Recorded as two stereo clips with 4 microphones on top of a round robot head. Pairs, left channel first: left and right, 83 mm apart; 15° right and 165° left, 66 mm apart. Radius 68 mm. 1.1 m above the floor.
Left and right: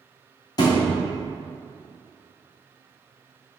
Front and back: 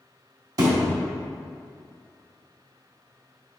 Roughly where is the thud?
Behind left.